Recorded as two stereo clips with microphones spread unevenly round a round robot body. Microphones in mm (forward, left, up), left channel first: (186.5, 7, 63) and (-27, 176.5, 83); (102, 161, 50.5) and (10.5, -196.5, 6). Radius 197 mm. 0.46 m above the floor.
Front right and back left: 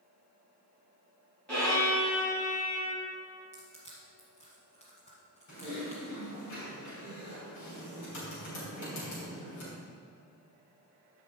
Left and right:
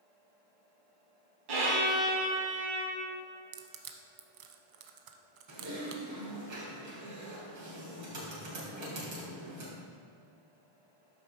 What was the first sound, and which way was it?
A violin, 125° right.